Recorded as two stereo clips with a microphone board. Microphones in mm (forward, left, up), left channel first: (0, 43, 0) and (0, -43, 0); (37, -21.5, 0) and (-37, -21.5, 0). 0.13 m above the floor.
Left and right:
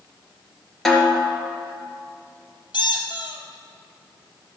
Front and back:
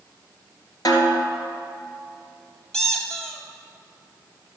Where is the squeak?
80° left, 1.5 m.